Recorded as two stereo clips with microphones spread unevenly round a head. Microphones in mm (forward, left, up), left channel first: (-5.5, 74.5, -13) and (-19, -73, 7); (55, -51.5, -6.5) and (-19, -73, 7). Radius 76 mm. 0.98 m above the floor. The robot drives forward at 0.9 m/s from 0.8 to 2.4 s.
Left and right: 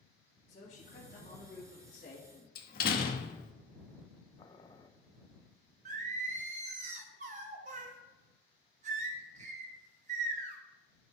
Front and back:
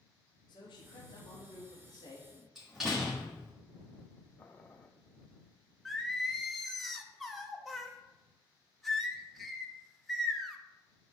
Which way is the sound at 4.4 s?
50° left.